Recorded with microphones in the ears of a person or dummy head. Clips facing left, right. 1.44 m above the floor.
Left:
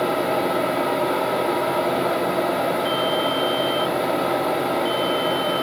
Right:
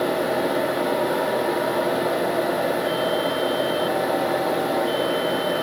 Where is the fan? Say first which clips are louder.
Even; 15° right (ahead or behind), 3 m.